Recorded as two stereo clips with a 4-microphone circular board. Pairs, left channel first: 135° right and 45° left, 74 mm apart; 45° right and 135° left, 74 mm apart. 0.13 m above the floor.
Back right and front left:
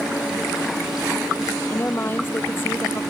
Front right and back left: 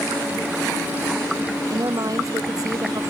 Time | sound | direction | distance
1.7 | a woman speaking | 165° left | ?